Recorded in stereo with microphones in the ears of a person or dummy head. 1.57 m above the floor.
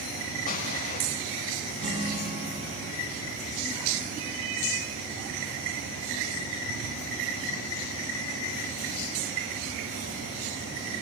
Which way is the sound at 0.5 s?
45° left (ahead or behind).